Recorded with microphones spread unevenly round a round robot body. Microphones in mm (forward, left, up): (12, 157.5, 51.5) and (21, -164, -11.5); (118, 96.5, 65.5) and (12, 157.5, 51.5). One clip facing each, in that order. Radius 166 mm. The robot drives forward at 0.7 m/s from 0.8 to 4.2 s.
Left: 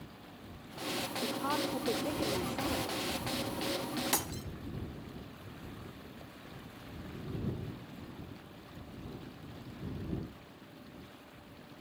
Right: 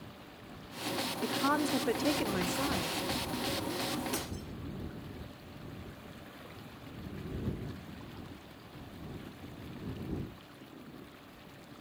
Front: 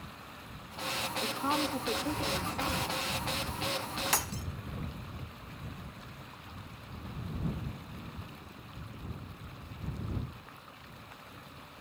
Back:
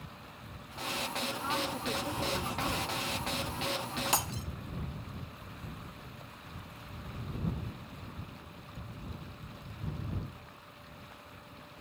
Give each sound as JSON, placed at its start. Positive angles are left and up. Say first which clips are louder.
{"t": 1.2, "sound": "a woman speaking", "louder": "right 4 dB, front 5 dB", "azimuth_deg": -75, "distance_m": 1.2}
{"t": 4.1, "sound": "breaking glass", "louder": "even, back 1 dB", "azimuth_deg": 80, "distance_m": 1.8}